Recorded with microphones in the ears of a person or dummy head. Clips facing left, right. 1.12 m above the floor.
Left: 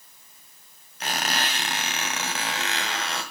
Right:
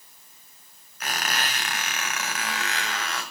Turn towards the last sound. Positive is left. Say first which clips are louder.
# left 2 dB
turn(degrees=20)  # may be behind; listen again after turning